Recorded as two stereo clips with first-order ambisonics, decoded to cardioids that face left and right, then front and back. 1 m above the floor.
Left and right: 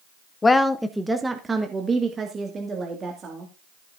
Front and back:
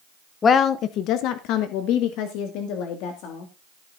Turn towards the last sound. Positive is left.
turn(degrees=-25)